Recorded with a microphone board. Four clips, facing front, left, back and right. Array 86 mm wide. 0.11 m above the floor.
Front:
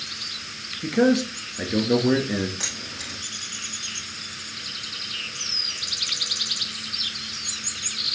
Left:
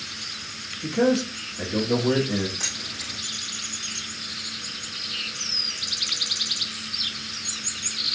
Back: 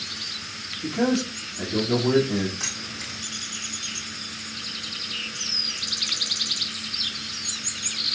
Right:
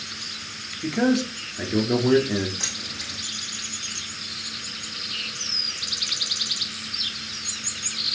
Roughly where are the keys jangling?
Ahead.